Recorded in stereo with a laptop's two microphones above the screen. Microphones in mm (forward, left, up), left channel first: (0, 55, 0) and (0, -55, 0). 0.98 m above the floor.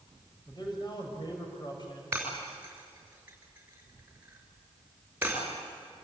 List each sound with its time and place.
0.5 s a man speaking: 40° left (ahead or behind), 4.5 m
2.1 s breaking glass: 15° right (ahead or behind), 6.5 m